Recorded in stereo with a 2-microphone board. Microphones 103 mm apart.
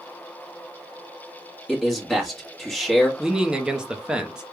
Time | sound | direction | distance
1.7 | a man speaking | centre (ahead or behind) | 1.8 m
3.2 | a man speaking | 10° right (ahead or behind) | 0.8 m